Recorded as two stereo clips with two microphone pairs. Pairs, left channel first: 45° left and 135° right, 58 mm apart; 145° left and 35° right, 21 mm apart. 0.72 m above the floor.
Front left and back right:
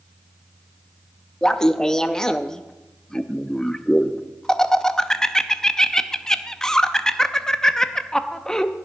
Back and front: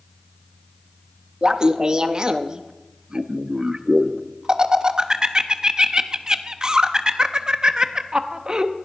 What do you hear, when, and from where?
1.4 s laughter: 25° right, 0.7 m